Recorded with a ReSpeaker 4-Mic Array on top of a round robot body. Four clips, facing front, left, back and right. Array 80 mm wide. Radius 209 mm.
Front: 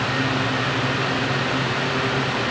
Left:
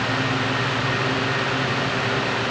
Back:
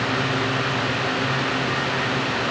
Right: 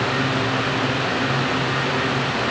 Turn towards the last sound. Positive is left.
No sound to turn to.